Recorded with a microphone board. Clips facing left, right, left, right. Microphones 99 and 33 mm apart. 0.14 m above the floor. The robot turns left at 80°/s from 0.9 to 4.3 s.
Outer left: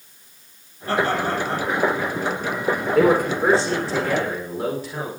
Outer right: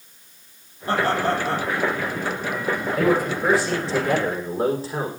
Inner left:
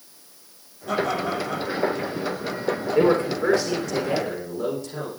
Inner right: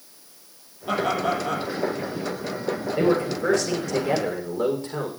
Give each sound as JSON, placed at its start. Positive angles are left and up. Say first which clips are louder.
{"t": 0.9, "sound": "laughter", "louder": "even, inner right 1 dB", "azimuth_deg": -25, "distance_m": 5.5}
{"t": 3.0, "sound": "a man speaking", "louder": "outer left 4 dB, inner left 3 dB", "azimuth_deg": 80, "distance_m": 7.0}